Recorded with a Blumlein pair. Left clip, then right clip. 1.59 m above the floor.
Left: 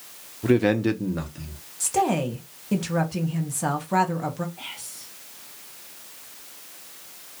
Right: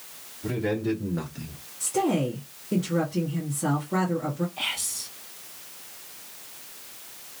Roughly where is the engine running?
No engine running in this recording.